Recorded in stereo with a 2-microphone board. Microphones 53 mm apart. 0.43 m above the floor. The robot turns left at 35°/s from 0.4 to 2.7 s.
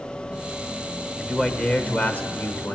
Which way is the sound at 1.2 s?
165° left.